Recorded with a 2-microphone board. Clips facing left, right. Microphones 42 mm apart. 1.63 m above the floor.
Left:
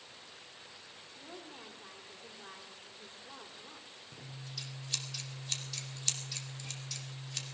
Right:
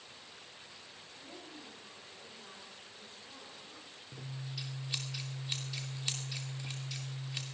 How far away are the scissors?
About 2.5 m.